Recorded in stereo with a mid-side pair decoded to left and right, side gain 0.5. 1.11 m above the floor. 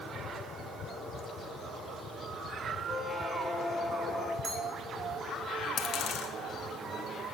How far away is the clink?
About 4.5 m.